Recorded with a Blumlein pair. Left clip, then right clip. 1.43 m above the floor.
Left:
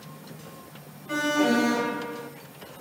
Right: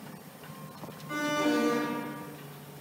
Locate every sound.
1.1 s an alarm: 65° left, 1.0 m